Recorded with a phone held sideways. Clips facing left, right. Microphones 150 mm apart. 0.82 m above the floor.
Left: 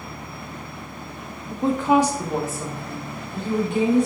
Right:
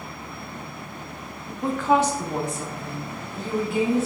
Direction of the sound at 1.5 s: 30° left (ahead or behind).